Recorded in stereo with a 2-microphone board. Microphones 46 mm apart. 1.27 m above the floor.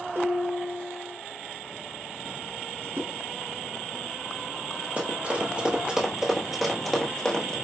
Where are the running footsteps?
35° right (ahead or behind), 1.5 m; by 7.5 s 20° left (ahead or behind), 1.5 m.